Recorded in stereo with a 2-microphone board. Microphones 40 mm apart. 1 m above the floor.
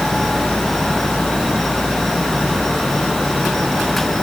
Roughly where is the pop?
No pop in this recording.